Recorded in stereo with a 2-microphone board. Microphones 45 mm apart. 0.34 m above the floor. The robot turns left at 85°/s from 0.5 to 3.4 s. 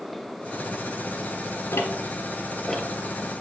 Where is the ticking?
85° left, 1.0 m; by 3.4 s 50° right (ahead or behind), 1.0 m.